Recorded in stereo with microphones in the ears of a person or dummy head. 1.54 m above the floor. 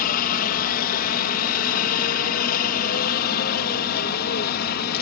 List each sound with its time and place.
0.0 s a helicopter: 45° left (ahead or behind); by 5.0 s 50° left (ahead or behind)